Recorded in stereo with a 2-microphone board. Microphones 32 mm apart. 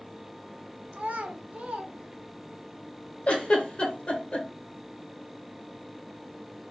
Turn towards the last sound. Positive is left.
turn(degrees=35)  # may be behind; listen again after turning